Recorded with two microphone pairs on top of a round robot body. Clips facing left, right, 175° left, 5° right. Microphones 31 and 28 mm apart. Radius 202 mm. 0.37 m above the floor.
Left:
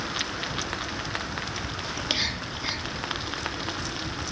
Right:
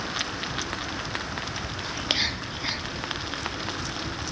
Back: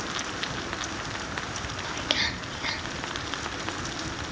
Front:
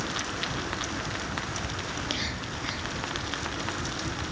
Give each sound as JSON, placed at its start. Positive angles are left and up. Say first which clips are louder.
{"t": 1.8, "sound": "whispering", "louder": "right 2 dB, back 8 dB", "azimuth_deg": -170, "distance_m": 1.2}